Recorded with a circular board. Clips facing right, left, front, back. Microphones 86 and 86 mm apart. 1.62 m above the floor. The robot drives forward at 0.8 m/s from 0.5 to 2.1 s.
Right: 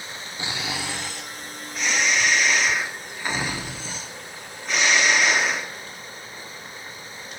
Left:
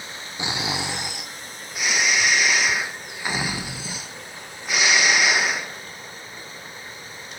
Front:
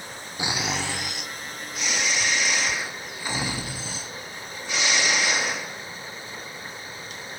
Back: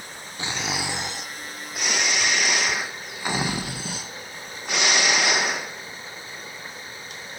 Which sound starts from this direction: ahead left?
Snoring, at 0.4 s.